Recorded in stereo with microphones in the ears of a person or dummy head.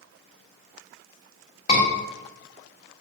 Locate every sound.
1.7 s a scream: 40° left (ahead or behind), 1.6 m